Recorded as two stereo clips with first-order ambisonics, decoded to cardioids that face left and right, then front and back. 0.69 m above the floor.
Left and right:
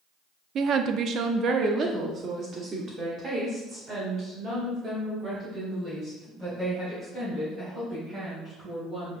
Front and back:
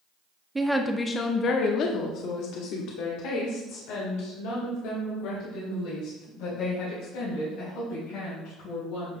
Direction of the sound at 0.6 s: 105° right.